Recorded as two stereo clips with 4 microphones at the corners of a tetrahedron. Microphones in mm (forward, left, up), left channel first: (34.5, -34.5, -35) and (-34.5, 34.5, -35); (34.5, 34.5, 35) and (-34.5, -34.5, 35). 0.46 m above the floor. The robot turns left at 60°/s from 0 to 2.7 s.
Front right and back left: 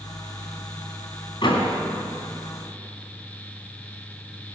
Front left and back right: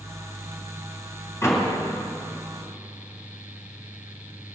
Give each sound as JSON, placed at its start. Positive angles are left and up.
{"t": 1.4, "sound": "a door slam", "azimuth_deg": -15, "distance_m": 3.0}